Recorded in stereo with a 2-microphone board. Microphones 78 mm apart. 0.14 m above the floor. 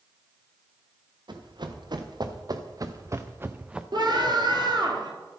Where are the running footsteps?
65° right (ahead or behind), 2.0 m; by 3.8 s 10° right (ahead or behind), 0.8 m.